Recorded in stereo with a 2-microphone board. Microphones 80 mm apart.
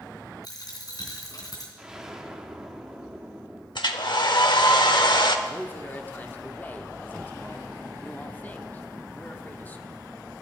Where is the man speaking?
25° left (ahead or behind), 0.9 m.